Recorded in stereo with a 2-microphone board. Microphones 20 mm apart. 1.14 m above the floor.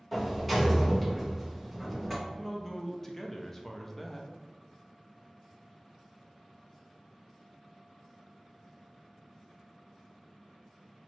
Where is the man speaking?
20° left (ahead or behind), 0.5 m.